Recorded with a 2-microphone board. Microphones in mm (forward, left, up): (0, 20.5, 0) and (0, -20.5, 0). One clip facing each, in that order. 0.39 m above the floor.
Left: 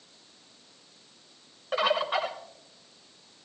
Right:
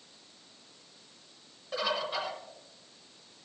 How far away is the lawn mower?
I don't hear a lawn mower.